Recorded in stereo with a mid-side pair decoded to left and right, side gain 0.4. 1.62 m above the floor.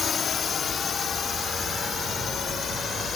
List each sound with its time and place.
0.0 s a drone: 55° left; by 3.2 s 60° left